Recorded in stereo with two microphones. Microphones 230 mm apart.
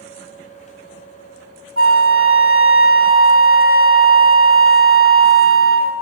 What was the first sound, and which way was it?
A flute, 65° right (ahead or behind).